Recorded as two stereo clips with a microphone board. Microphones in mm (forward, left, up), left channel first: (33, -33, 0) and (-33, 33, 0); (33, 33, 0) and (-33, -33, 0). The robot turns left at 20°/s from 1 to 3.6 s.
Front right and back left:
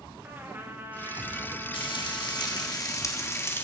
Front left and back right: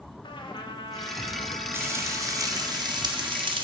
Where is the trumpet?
65° left, 1.9 m; by 2.7 s 30° left, 1.9 m.